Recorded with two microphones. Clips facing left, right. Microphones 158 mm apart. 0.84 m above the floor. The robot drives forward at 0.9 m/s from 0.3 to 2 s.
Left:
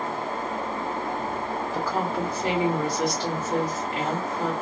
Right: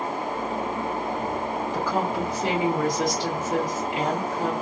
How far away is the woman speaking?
About 1.8 m.